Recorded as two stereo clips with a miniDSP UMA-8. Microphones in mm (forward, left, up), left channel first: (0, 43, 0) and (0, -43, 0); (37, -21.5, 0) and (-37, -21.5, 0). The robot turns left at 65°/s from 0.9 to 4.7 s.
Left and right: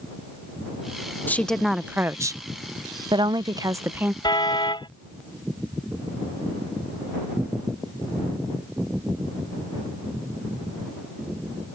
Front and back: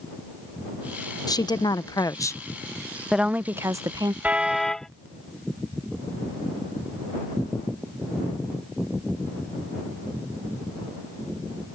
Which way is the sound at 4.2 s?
115° left.